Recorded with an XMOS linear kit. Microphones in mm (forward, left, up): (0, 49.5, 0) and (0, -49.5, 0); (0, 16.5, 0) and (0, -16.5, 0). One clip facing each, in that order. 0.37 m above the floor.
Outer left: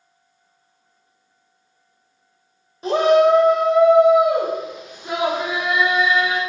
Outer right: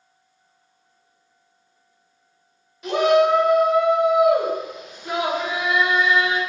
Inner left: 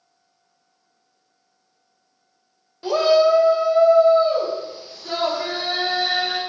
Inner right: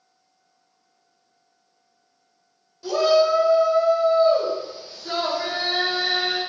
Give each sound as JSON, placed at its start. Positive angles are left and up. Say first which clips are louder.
{"t": 2.8, "sound": "a shout", "louder": "outer left 3 dB, inner left 2 dB", "side_deg": 35, "distance_m": 1.1}